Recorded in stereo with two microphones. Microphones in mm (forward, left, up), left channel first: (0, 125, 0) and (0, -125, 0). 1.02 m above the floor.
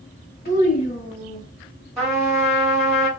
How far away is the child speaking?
About 0.6 m.